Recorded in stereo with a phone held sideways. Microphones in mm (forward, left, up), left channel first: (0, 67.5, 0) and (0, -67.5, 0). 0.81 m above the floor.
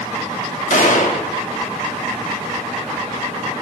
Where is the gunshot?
70° left (ahead or behind), 1.6 m.